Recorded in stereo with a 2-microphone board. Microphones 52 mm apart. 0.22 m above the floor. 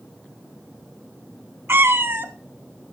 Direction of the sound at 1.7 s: 50° right (ahead or behind).